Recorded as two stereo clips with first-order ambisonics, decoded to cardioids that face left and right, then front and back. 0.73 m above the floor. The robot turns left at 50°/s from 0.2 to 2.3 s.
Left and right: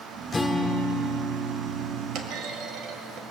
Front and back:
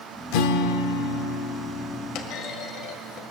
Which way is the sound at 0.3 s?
10° left.